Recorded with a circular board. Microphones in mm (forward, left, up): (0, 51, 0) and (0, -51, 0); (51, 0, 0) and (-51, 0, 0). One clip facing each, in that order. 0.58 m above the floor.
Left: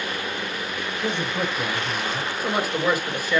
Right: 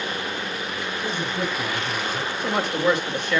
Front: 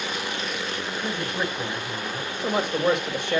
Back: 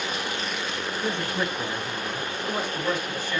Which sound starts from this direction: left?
A man speaking, at 1.0 s.